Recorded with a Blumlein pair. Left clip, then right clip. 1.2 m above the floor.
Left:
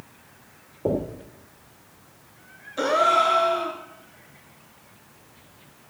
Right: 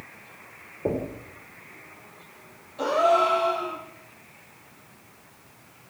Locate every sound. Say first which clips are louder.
0.8 s knocking: left 2 dB; 5° left, 2.5 m
2.8 s a gasp: left 1 dB; 45° left, 3 m